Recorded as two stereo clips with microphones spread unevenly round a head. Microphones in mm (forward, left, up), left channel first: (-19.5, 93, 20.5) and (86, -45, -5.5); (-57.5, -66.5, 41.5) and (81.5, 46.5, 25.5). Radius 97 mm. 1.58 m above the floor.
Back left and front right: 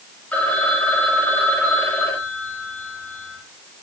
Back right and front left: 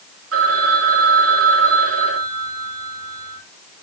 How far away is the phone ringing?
About 7 m.